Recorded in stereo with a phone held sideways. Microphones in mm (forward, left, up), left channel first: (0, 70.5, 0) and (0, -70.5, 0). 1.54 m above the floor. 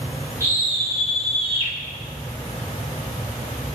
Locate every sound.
0.4 s a scream: 20° right (ahead or behind), 3 m; by 1.7 s 50° right (ahead or behind), 2 m